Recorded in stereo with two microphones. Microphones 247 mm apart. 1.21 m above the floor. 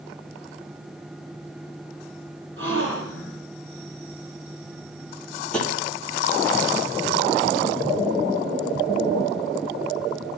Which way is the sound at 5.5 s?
5° left (ahead or behind).